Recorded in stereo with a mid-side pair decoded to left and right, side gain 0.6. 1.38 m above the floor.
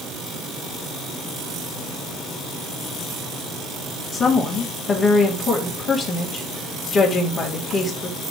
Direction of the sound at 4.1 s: 45° left.